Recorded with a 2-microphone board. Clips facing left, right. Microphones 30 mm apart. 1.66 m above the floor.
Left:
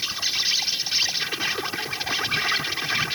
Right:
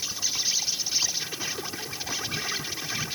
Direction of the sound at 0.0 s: 40° left (ahead or behind).